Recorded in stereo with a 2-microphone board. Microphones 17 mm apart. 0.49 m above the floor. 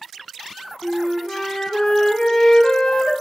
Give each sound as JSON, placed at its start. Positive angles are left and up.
{"t": 0.8, "sound": "a flute", "side_deg": 60, "distance_m": 0.5}